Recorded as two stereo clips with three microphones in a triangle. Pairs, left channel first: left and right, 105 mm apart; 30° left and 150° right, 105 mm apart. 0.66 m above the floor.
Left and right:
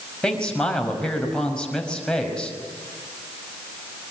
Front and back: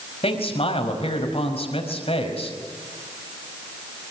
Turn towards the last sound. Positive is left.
turn(degrees=10)